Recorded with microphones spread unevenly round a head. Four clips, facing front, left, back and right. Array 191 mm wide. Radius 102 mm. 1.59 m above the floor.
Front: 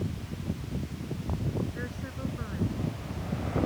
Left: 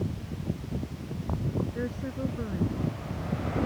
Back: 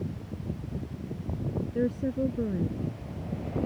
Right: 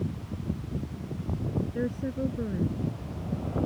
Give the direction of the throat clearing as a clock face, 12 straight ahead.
No throat clearing in this recording.